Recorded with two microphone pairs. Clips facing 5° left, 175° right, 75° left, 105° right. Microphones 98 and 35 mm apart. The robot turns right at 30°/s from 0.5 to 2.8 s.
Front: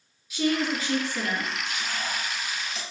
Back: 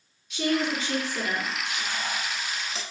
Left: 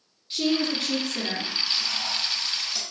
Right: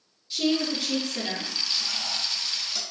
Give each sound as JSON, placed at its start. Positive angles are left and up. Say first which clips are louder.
{"t": 0.3, "sound": "a woman speaking", "louder": "front 1 dB, left 1 dB", "azimuth_deg": 80, "distance_m": 1.3}
{"t": 1.6, "sound": "frying", "louder": "even, left 1 dB", "azimuth_deg": 125, "distance_m": 0.8}